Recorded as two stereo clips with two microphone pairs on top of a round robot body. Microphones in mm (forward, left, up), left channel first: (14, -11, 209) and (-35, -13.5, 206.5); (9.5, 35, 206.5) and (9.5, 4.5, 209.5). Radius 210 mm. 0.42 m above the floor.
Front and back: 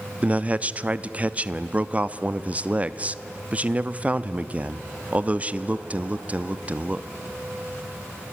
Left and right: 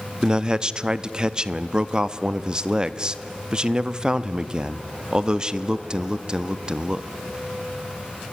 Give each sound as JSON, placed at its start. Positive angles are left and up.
{"t": 0.2, "sound": "a man speaking", "azimuth_deg": -145, "distance_m": 0.9}